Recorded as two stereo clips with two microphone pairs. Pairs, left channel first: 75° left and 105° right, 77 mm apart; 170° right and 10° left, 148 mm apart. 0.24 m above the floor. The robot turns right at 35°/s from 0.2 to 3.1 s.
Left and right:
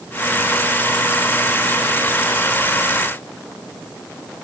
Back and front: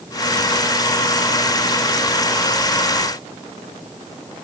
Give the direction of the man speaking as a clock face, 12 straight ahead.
I don't hear a man speaking.